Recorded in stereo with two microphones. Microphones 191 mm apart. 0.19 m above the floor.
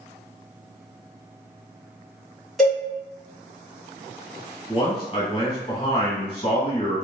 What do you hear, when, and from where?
2.6 s a cowbell: centre (ahead or behind), 1.7 m
4.7 s a man speaking: 35° left (ahead or behind), 1.3 m